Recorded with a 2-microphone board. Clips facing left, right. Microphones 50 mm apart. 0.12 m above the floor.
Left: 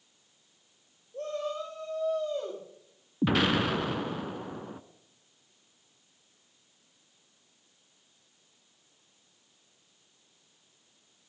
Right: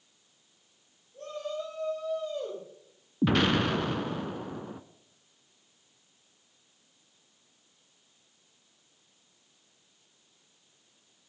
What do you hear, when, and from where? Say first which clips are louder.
1.1 s a shout: left 2 dB; 75° left (ahead or behind), 9 m; by 2.6 s 70° left (ahead or behind), 8.5 m
3.2 s an explosion: right 1 dB; 5° left (ahead or behind), 0.5 m